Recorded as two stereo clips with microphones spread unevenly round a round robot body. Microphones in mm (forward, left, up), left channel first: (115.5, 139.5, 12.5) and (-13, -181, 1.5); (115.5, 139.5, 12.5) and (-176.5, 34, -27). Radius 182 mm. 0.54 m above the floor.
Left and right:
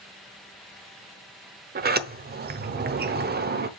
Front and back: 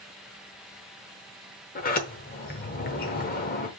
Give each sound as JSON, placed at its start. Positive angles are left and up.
{"t": 1.8, "sound": "a sliding door", "azimuth_deg": -50, "distance_m": 0.8}